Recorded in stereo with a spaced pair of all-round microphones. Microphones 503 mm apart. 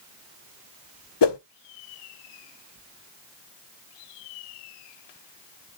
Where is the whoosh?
55° left (ahead or behind), 0.7 m.